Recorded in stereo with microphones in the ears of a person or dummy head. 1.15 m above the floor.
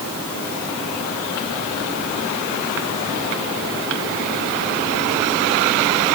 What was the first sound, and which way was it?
Only background noise.